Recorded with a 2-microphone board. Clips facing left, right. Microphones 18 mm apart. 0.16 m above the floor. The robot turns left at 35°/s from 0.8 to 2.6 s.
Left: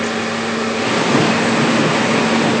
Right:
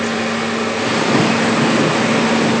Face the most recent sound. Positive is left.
No sound to turn to.